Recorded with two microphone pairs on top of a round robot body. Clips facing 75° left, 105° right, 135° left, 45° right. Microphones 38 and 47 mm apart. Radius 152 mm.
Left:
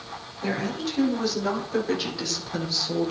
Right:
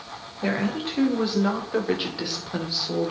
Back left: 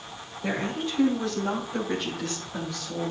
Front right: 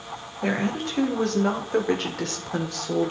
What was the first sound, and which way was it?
A woman speaking, 50° right.